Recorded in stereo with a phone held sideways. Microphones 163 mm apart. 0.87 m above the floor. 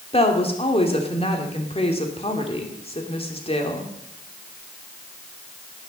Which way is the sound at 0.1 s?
40° left (ahead or behind).